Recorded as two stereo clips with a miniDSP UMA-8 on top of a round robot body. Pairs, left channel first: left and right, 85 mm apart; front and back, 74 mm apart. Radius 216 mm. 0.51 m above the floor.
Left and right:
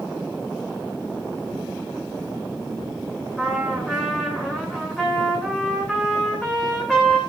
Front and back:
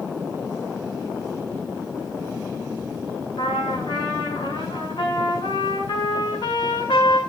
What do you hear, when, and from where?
3.4 s a trumpet: 5° left, 8 m